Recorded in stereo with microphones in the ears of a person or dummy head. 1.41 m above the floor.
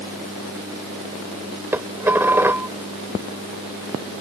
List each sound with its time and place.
1.7 s dishes clattering: 10° right (ahead or behind)